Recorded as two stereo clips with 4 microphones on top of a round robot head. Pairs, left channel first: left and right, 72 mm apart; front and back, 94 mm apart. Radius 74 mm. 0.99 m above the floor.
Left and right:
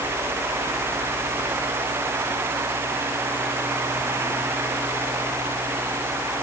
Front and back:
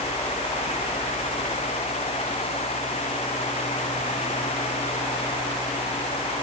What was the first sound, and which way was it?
Only background noise.